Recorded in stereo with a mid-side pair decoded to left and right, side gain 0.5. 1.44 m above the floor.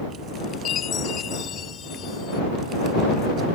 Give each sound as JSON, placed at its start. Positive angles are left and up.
{"t": 0.7, "sound": "a chime", "azimuth_deg": 55}